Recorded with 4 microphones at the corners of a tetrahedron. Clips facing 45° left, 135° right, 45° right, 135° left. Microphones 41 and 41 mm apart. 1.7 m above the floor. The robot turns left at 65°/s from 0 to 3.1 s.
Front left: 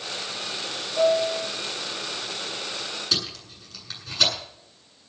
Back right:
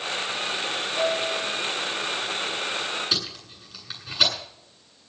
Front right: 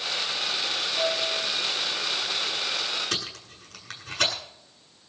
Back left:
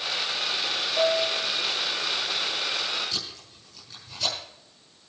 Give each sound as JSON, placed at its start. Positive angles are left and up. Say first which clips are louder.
{"t": 1.0, "sound": "a piano", "louder": "front left 5 dB, back left 5 dB", "azimuth_deg": 110, "distance_m": 7.0}
{"t": 3.1, "sound": "tape being pulled", "louder": "even, front right 3 dB", "azimuth_deg": -60, "distance_m": 9.5}